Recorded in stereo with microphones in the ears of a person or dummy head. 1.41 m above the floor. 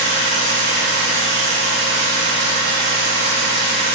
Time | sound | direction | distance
0.0 | a machine running | 65° right (ahead or behind) | 2.5 m